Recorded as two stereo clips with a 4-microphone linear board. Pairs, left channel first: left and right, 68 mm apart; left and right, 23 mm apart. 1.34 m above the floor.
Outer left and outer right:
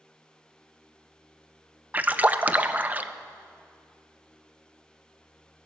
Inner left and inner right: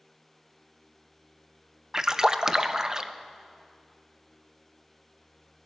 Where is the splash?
25° right (ahead or behind), 0.5 m.